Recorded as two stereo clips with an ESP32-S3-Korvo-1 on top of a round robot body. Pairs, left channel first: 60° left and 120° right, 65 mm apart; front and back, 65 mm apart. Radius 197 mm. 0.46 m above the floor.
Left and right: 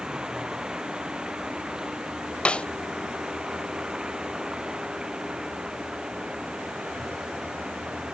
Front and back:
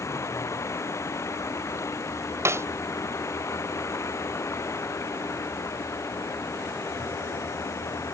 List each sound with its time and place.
0.0 s running water: 40° right
2.5 s a snare drum: 135° left